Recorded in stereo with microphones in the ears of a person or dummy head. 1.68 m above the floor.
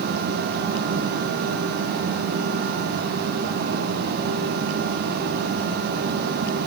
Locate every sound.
Only background noise.